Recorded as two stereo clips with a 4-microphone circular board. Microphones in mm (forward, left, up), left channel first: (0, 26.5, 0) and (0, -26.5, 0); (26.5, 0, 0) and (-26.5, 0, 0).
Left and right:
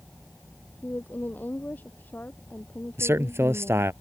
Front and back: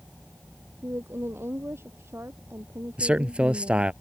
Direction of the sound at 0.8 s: 145° left.